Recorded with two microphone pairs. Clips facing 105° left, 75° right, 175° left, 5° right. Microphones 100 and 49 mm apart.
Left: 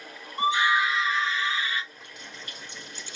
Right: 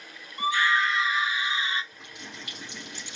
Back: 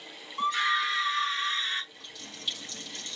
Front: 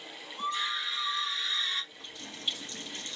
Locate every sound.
0.4 s a scream: 165° left, 1.1 m; by 1.8 s 140° right, 1.6 m
1.9 s a running tap: 75° right, 2.5 m